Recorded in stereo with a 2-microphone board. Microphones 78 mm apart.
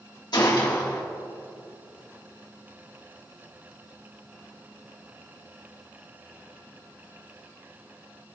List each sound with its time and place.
0.3 s a gunshot: 65° left (ahead or behind), 1.7 m